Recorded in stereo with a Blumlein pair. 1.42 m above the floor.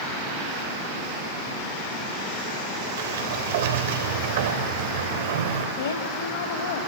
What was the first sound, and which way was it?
A sliding door, 60° right.